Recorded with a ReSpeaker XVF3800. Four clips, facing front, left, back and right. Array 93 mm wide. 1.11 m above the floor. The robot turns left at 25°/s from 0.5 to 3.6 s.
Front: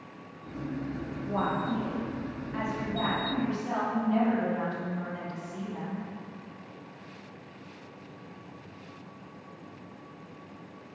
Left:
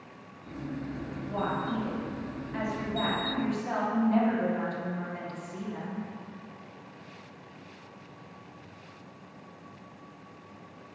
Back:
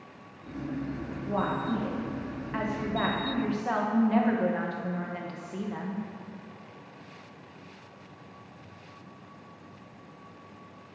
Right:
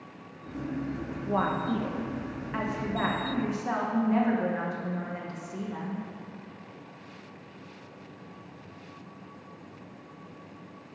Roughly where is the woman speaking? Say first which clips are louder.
Right 4 dB, even; right.